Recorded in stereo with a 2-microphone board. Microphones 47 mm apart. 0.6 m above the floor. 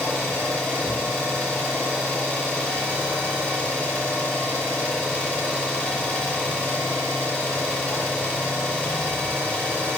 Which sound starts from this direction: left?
An engine running, at 0.0 s.